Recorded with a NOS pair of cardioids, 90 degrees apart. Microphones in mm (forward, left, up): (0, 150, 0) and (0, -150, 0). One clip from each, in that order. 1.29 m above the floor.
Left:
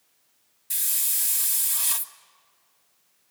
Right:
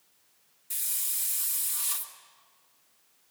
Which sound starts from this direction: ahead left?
A hiss, at 0.7 s.